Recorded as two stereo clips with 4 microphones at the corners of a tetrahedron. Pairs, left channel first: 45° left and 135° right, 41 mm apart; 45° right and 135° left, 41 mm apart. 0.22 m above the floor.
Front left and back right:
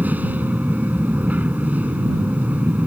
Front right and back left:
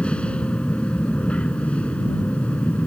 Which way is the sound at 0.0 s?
100° right.